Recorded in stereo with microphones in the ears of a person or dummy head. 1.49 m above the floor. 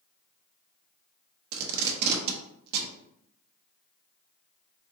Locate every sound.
1.5 s tape being pulled: 60° right (ahead or behind), 0.8 m